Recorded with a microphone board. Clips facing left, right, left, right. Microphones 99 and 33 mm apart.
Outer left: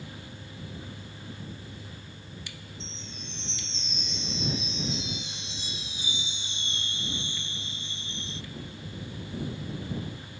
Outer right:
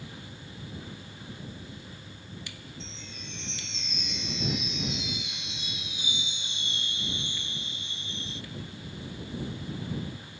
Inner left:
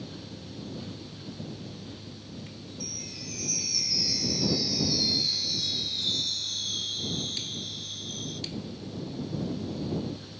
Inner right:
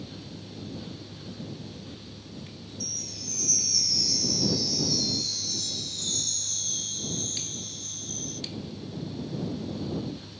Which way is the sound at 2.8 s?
30° left (ahead or behind).